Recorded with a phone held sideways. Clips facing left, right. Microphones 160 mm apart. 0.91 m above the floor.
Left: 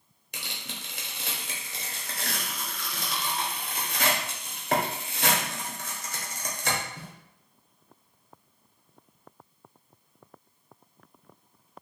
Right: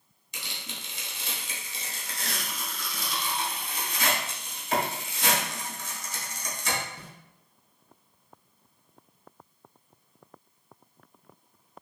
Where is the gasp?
No gasp in this recording.